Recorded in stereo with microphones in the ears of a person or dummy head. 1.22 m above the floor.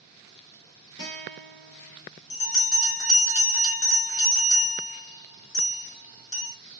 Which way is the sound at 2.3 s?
80° left.